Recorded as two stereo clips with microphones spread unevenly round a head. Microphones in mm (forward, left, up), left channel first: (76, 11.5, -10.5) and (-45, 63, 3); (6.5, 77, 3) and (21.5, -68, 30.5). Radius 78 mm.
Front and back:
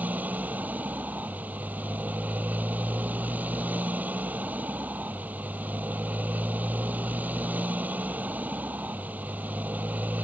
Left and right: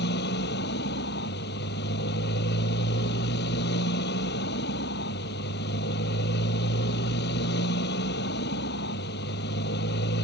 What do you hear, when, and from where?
0.0 s a motorcycle: 80° left